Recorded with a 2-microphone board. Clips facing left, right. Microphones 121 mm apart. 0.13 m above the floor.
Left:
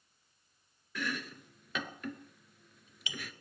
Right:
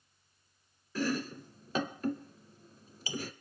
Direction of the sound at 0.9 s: 35° right (ahead or behind).